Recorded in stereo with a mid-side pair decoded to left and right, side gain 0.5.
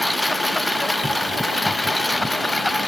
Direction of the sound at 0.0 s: 10° left.